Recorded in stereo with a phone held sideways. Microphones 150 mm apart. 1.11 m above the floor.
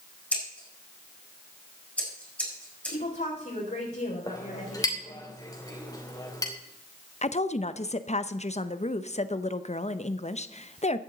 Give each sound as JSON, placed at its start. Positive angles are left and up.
{"t": 0.3, "sound": "scissors", "side_deg": 10, "distance_m": 6.0}
{"t": 2.9, "sound": "a woman speaking", "side_deg": 65, "distance_m": 4.5}
{"t": 4.3, "sound": "a clink", "side_deg": 25, "distance_m": 3.0}
{"t": 7.2, "sound": "a woman speaking", "side_deg": 50, "distance_m": 0.8}